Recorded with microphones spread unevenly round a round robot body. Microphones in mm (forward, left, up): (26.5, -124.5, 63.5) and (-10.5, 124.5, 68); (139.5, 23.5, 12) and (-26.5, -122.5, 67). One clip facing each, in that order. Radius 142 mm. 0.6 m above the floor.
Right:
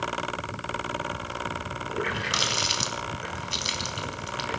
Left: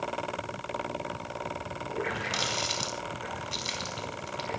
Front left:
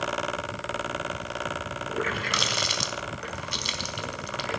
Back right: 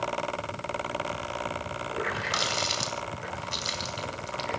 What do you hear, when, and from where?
1.9 s a running tap: 10° right, 4 m